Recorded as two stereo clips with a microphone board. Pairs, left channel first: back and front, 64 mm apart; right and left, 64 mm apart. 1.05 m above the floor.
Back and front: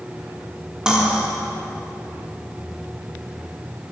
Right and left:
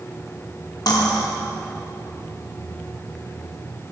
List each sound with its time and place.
0.9 s cutlery clinking: 80° right, 1.3 m